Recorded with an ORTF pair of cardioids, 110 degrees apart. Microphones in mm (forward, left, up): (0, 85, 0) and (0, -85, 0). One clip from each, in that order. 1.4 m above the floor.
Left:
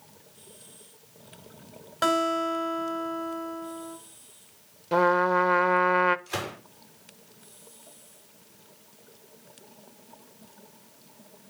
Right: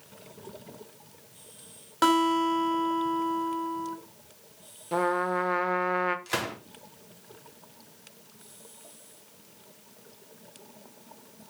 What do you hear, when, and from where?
2.0 s a guitar: 15° right, 2.5 m
4.9 s a trumpet: 20° left, 0.6 m
6.3 s a gunshot: 55° right, 4.5 m